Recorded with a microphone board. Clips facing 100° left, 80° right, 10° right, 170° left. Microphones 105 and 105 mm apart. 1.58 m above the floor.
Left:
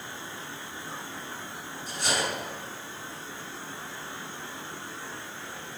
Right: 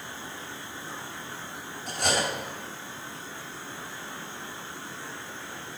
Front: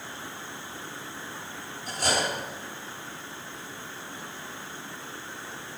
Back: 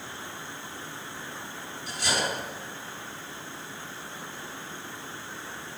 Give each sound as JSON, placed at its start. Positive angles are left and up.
{"t": 1.9, "sound": "cutlery clinking", "azimuth_deg": -55, "distance_m": 2.5}